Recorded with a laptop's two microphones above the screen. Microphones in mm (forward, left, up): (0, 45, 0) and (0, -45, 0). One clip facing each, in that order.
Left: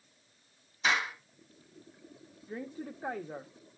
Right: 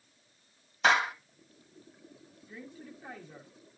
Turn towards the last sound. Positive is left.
turn(degrees=65)  # may be behind; listen again after turning